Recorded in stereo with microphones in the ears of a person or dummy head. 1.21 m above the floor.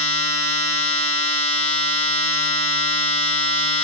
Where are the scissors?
No scissors in this recording.